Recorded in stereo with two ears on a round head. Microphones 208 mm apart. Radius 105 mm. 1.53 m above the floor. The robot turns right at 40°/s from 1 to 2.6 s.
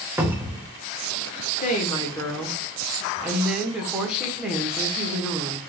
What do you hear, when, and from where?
0.2 s a cupboard door: 10° right (ahead or behind), 0.7 m
1.6 s a woman speaking: 145° left, 1.0 m; by 5.6 s 175° right, 1.0 m